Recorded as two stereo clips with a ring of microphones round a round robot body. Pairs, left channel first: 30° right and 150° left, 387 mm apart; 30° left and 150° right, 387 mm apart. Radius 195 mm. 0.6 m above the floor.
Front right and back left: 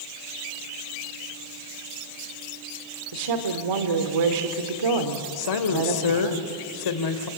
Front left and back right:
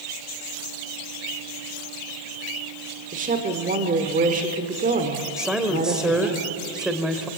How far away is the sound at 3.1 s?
About 2.0 m.